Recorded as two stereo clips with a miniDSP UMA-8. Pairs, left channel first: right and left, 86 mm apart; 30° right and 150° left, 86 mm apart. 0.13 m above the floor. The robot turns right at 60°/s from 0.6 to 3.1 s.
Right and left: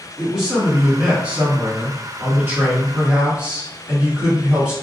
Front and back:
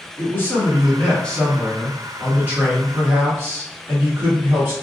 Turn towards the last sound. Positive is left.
turn(degrees=145)